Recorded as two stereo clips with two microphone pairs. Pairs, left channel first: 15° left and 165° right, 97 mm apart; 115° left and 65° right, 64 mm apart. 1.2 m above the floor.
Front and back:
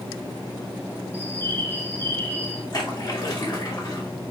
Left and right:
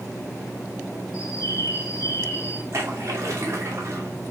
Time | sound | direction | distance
1.1 | a bird | 80° left | 2 m
2.7 | a splash | 25° right | 2.5 m